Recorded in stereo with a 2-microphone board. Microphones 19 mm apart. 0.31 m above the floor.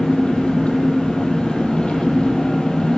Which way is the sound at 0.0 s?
65° left (ahead or behind).